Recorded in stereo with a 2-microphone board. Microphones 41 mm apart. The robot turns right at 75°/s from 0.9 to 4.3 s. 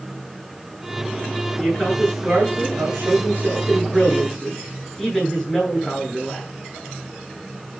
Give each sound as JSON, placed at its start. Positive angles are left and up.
{"t": 1.6, "sound": "a man speaking", "azimuth_deg": 160, "distance_m": 10.0}